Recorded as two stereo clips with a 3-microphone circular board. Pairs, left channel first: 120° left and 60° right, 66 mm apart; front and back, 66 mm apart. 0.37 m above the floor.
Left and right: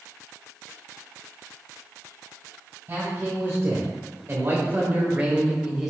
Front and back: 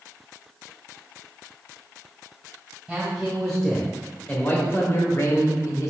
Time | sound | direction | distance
2.9 | a man speaking | 100° right | 1.4 m